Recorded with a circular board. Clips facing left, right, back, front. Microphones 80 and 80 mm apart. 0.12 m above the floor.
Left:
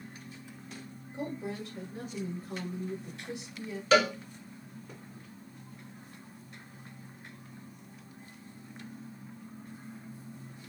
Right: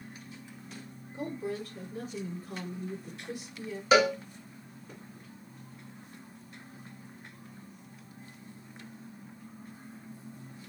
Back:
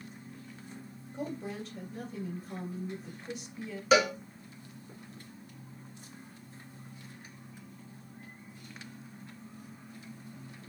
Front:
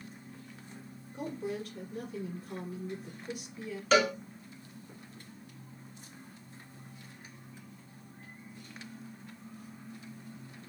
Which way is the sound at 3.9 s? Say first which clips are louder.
Right 1 dB, back 1 dB; 125° right.